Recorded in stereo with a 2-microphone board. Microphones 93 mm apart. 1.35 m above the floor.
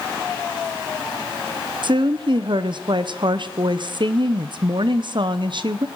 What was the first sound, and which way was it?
A woman speaking, 55° right (ahead or behind).